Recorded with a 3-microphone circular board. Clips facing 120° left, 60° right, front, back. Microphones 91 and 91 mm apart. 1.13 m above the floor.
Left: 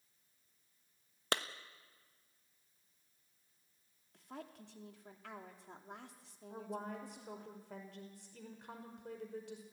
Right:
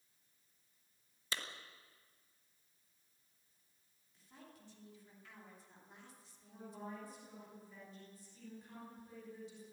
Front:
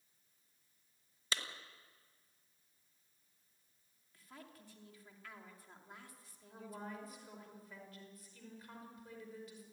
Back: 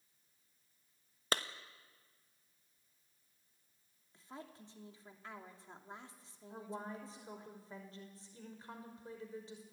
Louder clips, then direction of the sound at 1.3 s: Left 8 dB, back 6 dB; 140° left.